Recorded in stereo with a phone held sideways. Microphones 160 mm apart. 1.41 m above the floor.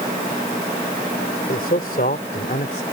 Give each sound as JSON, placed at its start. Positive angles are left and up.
{"t": 1.5, "sound": "a man speaking", "side_deg": 70}